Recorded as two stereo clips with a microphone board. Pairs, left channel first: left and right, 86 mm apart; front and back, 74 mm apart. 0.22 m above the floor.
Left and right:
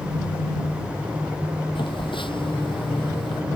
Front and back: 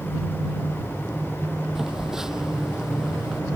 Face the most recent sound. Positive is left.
turn(degrees=100)